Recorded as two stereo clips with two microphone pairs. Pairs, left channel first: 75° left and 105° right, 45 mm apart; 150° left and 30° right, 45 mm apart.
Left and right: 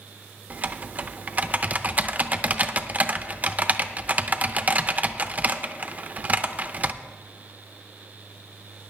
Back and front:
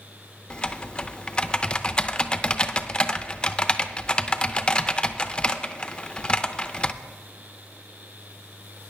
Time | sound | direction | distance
0.5 | typing on a keyboard | 145° right | 0.5 m